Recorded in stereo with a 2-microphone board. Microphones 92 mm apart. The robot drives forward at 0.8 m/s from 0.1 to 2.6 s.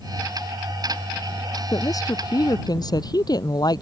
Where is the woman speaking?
40° left (ahead or behind); by 3.8 s 45° left (ahead or behind).